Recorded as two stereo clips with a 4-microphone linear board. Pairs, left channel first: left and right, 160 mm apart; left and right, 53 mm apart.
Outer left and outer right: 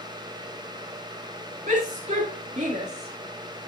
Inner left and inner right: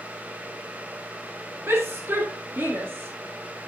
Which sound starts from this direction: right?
A shout, at 1.7 s.